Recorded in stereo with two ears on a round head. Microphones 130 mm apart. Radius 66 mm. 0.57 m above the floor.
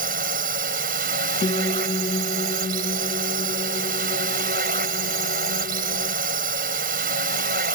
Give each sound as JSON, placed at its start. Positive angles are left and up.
{"t": 0.0, "sound": "a drone", "side_deg": -65}
{"t": 1.4, "sound": "a piano", "side_deg": 30}